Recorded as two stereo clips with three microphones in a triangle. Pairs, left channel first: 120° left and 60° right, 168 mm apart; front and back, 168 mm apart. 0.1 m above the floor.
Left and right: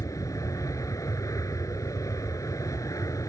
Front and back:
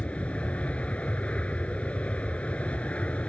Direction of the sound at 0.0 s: 75° left.